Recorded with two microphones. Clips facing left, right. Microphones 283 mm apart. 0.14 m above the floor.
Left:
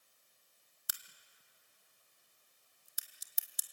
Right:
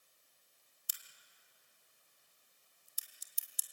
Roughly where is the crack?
Left.